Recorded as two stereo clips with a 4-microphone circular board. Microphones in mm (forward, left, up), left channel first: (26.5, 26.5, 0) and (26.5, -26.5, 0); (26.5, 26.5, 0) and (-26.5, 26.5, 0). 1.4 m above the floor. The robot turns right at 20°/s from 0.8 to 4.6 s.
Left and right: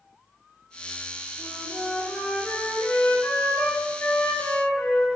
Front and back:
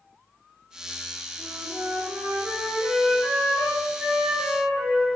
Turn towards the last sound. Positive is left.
turn(degrees=120)